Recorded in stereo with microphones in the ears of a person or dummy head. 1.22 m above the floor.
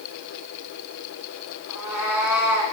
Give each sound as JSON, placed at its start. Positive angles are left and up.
{"t": 1.7, "sound": "a cat meowing", "side_deg": -15, "distance_m": 1.7}